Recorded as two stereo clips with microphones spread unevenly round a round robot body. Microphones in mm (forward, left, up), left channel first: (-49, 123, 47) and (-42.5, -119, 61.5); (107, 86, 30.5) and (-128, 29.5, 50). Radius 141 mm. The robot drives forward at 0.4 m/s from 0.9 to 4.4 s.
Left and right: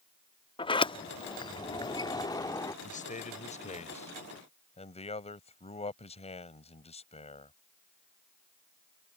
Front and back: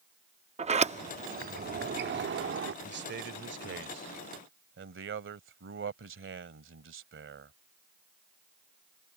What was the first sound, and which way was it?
A sliding door, 140° left.